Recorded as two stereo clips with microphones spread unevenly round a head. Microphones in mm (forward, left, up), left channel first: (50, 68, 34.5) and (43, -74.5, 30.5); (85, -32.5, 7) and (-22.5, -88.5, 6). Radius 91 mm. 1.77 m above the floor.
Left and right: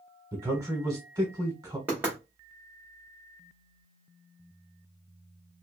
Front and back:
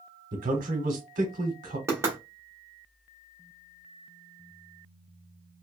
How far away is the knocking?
About 0.8 m.